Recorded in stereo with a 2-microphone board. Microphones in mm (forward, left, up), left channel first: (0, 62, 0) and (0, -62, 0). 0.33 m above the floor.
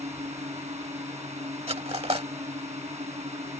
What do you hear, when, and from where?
0.0 s a drone: 65° right (ahead or behind)
1.7 s cutlery clinking: 55° right (ahead or behind)